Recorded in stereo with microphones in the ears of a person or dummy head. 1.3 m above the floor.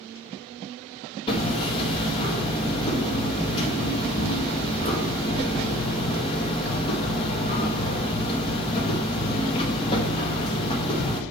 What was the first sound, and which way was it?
Hammering, 25° left (ahead or behind).